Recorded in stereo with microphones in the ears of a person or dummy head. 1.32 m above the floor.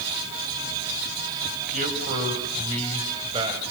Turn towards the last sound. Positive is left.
turn(degrees=-25)  # may be behind; listen again after turning